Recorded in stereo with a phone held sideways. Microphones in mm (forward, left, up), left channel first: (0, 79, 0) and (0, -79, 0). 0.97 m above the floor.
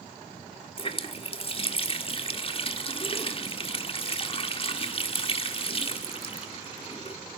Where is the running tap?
40° left (ahead or behind), 1.6 m.